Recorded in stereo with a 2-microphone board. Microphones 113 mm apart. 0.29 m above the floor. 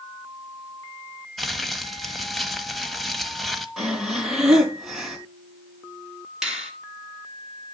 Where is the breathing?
5° right (ahead or behind), 4 m.